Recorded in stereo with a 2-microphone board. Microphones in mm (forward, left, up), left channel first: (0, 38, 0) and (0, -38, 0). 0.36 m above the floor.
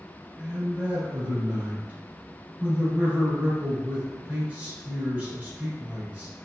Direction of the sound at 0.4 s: 20° right (ahead or behind).